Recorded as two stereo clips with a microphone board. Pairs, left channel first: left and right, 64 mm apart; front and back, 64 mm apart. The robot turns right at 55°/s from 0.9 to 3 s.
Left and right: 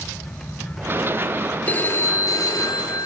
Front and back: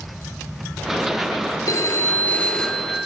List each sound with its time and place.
1.7 s a phone ringing: 25° left, 2 m; by 3.1 s 100° left, 2 m